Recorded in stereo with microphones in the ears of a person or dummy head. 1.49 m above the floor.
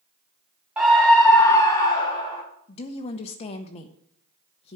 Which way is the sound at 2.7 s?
30° left (ahead or behind).